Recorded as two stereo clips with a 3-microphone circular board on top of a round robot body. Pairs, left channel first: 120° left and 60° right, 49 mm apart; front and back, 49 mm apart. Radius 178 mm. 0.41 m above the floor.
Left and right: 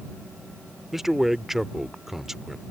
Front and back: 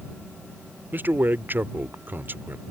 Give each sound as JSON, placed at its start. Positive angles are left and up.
{"t": 0.9, "sound": "a man speaking", "azimuth_deg": -145}